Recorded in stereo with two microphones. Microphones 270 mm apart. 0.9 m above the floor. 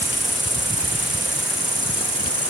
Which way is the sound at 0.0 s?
30° right (ahead or behind).